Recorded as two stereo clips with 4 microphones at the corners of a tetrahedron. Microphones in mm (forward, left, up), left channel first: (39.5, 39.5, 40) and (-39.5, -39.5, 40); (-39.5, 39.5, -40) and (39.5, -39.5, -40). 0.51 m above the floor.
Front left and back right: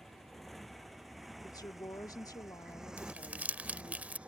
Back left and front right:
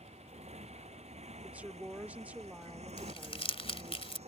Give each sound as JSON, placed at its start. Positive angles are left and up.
{"t": 0.0, "sound": "a motorcycle", "azimuth_deg": -45}
{"t": 1.4, "sound": "a woman speaking", "azimuth_deg": 20}
{"t": 3.0, "sound": "crumpling", "azimuth_deg": 150}